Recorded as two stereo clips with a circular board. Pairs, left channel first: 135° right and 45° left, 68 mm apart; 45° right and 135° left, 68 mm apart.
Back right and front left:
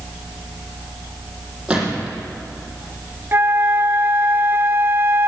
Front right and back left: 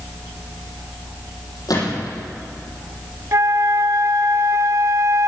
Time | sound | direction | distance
1.7 | a gunshot | 30° right | 6 m
3.3 | a flute | 100° left | 0.5 m